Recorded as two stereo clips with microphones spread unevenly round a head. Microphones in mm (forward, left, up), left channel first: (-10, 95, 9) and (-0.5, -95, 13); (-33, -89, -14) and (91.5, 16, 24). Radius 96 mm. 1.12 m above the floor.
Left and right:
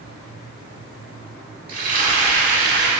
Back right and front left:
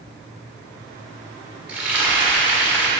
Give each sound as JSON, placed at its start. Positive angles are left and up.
{"t": 1.7, "sound": "frying", "azimuth_deg": -40, "distance_m": 1.7}